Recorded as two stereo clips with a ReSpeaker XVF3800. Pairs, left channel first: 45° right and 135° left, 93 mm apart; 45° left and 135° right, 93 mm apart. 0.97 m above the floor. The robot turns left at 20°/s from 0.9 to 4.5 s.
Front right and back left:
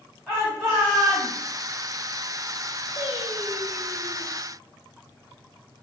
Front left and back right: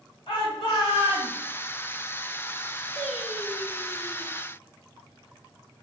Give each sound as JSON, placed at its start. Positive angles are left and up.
{"t": 0.3, "sound": "a shout", "azimuth_deg": 35, "distance_m": 1.6}
{"t": 3.0, "sound": "singing", "azimuth_deg": -40, "distance_m": 1.5}